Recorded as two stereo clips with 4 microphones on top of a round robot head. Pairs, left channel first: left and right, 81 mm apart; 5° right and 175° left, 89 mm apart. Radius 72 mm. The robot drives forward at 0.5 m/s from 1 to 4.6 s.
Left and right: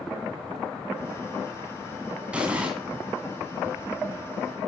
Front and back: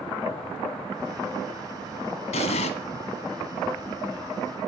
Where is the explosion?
10° right, 1.9 m.